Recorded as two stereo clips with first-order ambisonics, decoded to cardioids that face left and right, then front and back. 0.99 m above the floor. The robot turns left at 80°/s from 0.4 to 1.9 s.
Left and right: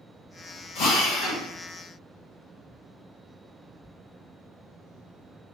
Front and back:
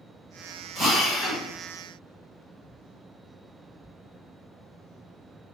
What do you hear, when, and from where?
0.8 s a drill: 110° left, 1.5 m; by 1.4 s 55° left, 1.5 m